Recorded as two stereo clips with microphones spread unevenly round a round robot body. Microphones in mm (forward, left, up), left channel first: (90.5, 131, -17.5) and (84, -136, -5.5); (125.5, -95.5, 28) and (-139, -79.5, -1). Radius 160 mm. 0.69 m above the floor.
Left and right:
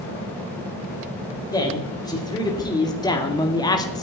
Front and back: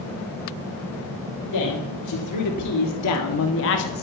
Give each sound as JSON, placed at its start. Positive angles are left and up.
{"t": 1.5, "sound": "a man speaking", "azimuth_deg": 15, "distance_m": 3.5}